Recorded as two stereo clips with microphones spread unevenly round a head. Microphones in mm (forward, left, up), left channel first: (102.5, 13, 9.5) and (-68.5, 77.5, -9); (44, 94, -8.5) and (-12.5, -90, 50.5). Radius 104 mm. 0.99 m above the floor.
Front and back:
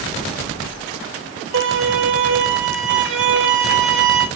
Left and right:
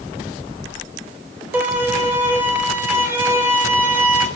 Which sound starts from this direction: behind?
A violin, at 1.5 s.